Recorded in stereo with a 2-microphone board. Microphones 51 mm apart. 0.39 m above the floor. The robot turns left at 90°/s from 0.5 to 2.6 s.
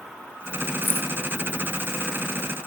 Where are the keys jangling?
35° right (ahead or behind), 1.2 m; by 1.1 s 55° right (ahead or behind), 1.2 m.